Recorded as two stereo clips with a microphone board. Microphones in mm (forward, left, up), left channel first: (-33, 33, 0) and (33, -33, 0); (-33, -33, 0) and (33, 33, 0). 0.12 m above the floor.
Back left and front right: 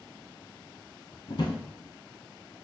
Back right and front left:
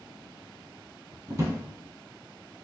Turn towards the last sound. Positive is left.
turn(degrees=100)